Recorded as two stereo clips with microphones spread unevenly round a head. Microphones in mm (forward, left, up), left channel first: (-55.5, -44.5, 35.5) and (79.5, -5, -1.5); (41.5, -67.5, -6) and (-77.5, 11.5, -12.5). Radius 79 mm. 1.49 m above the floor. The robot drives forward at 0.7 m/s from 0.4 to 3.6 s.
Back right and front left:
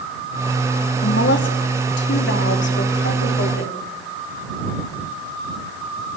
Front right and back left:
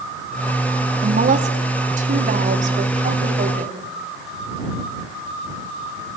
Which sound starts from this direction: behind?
A woman speaking, at 1.0 s.